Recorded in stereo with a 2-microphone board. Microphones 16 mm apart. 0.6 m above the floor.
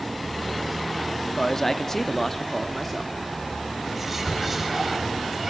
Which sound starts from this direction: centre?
Whispering, at 3.9 s.